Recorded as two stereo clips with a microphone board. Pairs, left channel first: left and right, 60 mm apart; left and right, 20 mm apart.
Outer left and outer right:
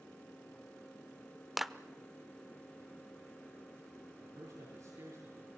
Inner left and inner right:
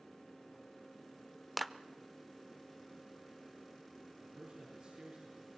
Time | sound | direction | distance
1.6 | a clap | centre (ahead or behind) | 0.7 m
4.2 | a man speaking | 70° right (ahead or behind) | 7 m